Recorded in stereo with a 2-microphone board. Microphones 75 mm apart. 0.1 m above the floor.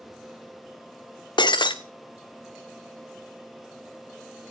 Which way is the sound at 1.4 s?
80° left.